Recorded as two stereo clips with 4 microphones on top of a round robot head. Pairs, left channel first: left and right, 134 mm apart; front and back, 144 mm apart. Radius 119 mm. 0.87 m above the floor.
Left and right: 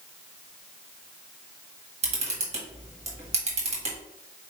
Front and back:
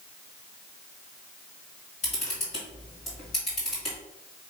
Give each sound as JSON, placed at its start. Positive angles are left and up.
{"t": 2.0, "sound": "a camera shutter", "azimuth_deg": -60, "distance_m": 1.4}